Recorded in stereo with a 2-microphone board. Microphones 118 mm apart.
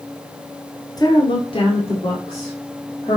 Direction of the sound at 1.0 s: 30° left (ahead or behind).